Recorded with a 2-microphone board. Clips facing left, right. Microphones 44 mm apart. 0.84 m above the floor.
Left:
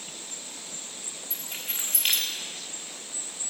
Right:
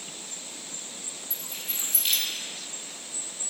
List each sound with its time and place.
1.3 s keys jangling: 50° left (ahead or behind), 1.4 m